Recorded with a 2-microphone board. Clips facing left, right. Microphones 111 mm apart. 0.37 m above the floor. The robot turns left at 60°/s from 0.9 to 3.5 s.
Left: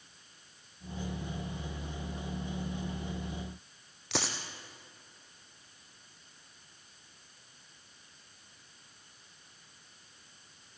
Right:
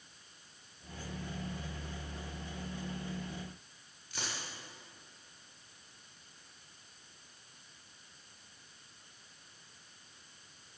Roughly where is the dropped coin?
Left.